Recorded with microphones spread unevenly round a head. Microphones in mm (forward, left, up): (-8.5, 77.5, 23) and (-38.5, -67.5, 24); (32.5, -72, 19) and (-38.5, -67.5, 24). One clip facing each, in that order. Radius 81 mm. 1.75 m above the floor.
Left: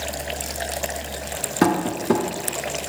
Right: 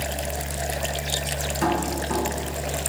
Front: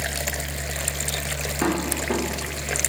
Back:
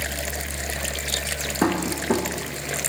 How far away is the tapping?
About 0.7 m.